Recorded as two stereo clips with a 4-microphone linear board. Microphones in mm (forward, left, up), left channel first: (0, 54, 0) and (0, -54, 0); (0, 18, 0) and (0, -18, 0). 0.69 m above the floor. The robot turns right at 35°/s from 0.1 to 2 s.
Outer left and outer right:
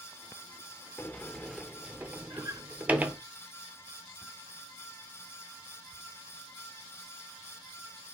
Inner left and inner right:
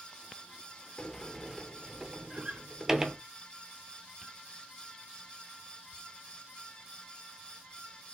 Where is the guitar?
30° right (ahead or behind), 0.6 m.